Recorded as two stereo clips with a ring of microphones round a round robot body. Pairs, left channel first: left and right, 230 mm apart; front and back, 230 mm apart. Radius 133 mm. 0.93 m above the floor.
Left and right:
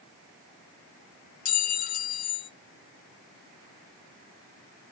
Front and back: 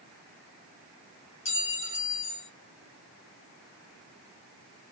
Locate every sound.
1.4 s a clink: 65° left, 0.9 m